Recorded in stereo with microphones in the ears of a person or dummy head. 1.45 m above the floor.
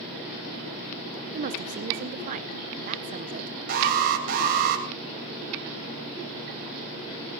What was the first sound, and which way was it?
A woman speaking, 40° right (ahead or behind).